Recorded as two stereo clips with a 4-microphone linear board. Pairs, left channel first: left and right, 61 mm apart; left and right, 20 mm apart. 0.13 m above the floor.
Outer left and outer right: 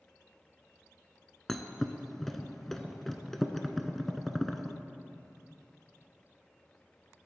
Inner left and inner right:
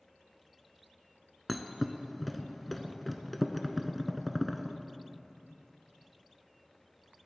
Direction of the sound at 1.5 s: 5° left (ahead or behind).